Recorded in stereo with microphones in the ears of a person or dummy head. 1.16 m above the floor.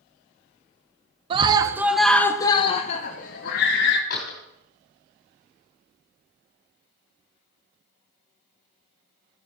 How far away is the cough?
I don't hear a cough.